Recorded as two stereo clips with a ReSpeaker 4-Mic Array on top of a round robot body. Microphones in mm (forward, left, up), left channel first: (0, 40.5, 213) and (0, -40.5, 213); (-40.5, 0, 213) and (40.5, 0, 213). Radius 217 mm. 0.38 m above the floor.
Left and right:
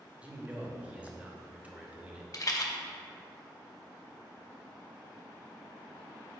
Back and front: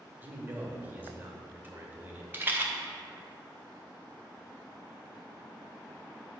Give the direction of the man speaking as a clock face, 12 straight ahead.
1 o'clock.